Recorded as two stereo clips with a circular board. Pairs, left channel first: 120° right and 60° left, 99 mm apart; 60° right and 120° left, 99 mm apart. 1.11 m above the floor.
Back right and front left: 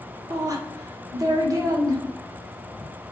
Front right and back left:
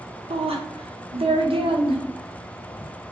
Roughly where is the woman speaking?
Behind left.